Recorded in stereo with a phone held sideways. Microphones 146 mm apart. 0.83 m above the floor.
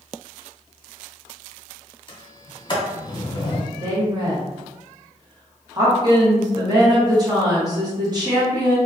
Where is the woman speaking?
30° right (ahead or behind), 0.9 m.